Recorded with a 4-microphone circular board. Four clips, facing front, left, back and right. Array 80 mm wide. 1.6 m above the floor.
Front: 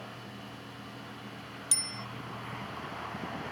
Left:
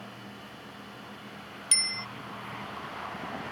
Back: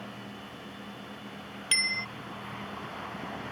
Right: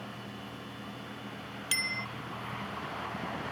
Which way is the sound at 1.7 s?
170° right.